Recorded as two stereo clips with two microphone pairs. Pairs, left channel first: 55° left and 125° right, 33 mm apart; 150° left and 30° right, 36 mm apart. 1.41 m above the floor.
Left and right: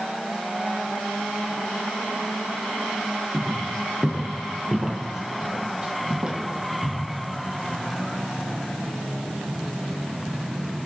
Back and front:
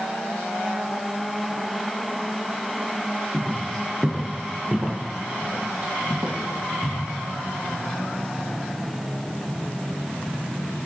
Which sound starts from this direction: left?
Footsteps, at 3.3 s.